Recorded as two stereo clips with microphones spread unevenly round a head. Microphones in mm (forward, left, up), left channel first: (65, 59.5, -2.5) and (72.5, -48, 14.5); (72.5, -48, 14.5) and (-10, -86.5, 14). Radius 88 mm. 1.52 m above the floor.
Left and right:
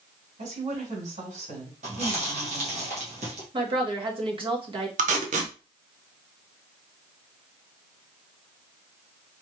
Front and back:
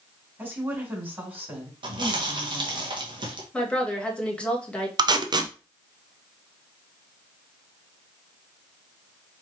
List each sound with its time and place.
0.4 s a woman speaking: 85° right, 3 m
1.8 s chewing: 125° right, 1.5 m
3.5 s a woman speaking: 55° right, 1.8 m
5.0 s tape being pulled: 115° right, 0.7 m